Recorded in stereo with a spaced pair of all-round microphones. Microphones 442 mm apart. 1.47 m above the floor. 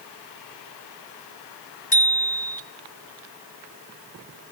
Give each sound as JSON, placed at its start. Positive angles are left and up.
{"t": 1.9, "sound": "a bicycle bell", "side_deg": 15, "distance_m": 3.0}